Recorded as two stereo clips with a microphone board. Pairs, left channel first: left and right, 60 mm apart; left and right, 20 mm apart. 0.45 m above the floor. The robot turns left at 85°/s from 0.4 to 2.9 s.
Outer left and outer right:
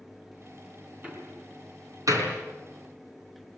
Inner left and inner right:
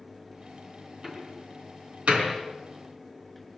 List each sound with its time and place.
1.0 s a door slam: 20° right (ahead or behind), 4 m; by 2.4 s 45° right (ahead or behind), 4 m